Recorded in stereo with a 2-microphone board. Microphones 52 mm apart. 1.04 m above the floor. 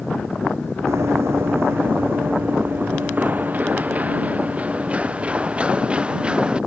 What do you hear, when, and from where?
0.9 s running footsteps: 65° right (ahead or behind); by 6.6 s 20° right (ahead or behind)